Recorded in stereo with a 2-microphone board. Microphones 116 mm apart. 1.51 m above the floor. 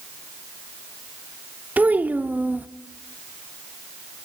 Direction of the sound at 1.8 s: 15° right (ahead or behind).